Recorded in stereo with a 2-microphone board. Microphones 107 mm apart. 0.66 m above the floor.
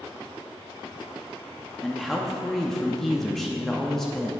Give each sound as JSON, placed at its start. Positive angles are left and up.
{"t": 1.8, "sound": "a man speaking", "side_deg": 5, "distance_m": 0.6}